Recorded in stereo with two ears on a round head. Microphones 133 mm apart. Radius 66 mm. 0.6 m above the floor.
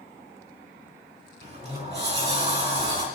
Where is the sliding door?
45° right (ahead or behind), 2.5 m.